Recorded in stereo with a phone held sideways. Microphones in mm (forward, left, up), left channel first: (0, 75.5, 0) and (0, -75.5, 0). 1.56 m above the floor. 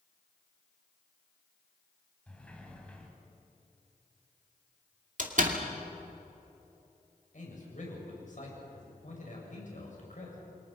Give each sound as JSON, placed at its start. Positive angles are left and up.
{"t": 2.3, "sound": "a sliding door", "side_deg": 10, "distance_m": 3.5}
{"t": 5.2, "sound": "a door slam", "side_deg": -60, "distance_m": 2.5}
{"t": 7.3, "sound": "a man speaking", "side_deg": 55, "distance_m": 7.5}